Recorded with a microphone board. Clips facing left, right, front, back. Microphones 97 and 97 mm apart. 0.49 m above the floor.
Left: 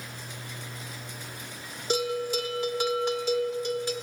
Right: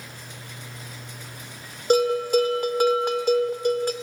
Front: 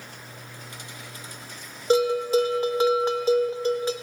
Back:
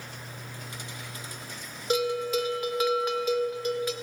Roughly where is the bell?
Ahead right.